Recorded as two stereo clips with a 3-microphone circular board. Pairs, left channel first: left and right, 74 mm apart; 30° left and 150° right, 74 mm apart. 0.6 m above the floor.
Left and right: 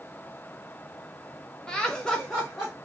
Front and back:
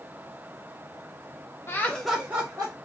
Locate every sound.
1.7 s laughter: 20° left, 0.6 m; by 2.7 s 175° left, 0.9 m